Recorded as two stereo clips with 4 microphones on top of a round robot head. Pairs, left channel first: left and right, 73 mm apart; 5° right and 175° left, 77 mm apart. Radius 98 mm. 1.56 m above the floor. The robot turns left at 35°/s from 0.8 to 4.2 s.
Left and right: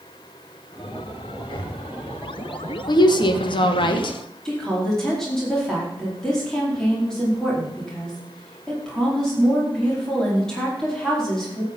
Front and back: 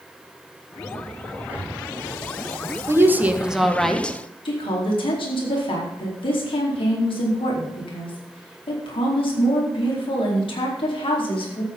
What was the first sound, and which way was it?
Breathing, 110° left.